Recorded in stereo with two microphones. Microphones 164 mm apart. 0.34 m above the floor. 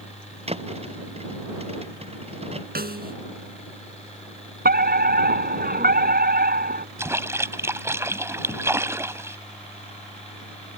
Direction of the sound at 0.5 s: 40° right (ahead or behind).